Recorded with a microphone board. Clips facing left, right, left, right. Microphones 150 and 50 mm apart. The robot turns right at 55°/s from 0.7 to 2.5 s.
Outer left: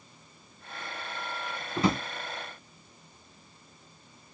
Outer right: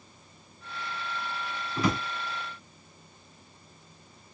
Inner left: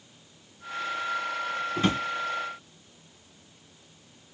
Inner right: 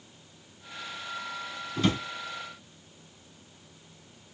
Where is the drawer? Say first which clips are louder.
Outer left 1 dB, even; 25° left (ahead or behind), 0.8 m; by 2.0 s 35° left (ahead or behind), 0.8 m.